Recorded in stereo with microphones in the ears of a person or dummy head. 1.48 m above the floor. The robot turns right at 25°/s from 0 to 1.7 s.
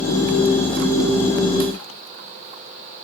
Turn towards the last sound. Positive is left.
No sound to turn to.